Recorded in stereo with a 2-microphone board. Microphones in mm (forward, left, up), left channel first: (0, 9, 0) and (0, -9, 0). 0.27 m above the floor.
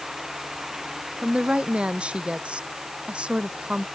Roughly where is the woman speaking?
Right.